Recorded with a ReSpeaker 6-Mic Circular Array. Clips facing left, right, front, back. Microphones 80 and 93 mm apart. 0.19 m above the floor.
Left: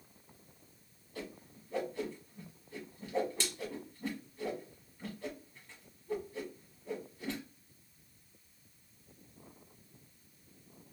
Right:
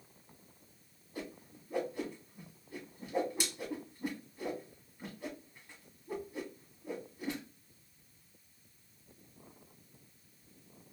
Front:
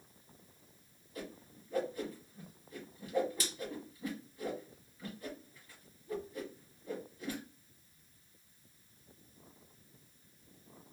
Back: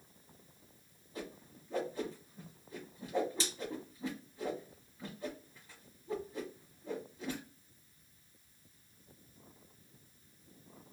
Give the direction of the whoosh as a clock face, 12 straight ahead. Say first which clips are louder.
Right 1 dB, back 1 dB; 5 o'clock.